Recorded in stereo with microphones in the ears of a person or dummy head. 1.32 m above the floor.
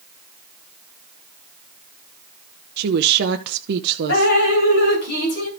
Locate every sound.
2.8 s a woman speaking: 60° right (ahead or behind), 0.7 m
4.1 s dripping: 55° left (ahead or behind), 2.5 m